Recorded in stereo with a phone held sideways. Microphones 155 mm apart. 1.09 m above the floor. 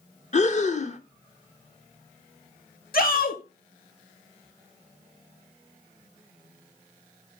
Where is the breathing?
50° left (ahead or behind), 0.7 m.